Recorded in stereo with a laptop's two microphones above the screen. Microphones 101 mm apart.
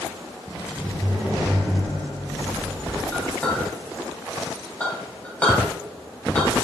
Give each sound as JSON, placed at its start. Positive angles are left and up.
{"t": 3.1, "sound": "a clink", "side_deg": 15, "distance_m": 3.5}